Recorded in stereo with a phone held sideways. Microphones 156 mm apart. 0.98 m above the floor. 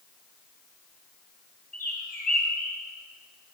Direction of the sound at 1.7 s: 60° left (ahead or behind).